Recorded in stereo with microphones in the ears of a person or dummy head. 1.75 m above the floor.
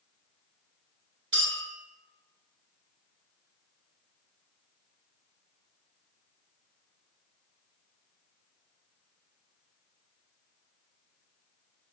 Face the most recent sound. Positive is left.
turn(degrees=-20)  # may be behind; listen again after turning